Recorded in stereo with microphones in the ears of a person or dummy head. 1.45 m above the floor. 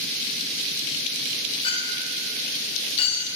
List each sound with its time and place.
1.6 s a clink: 30° left (ahead or behind), 2.5 m